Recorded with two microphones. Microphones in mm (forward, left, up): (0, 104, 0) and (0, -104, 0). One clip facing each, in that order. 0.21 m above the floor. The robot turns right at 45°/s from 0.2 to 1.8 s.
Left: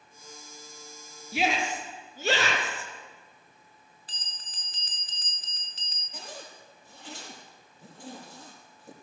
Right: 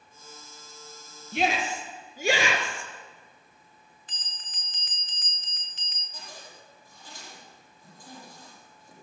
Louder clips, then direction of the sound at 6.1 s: Left 4 dB; 75° left (ahead or behind).